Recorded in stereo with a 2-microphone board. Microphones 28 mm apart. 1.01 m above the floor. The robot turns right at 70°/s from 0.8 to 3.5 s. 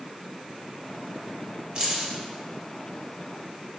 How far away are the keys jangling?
About 0.9 m.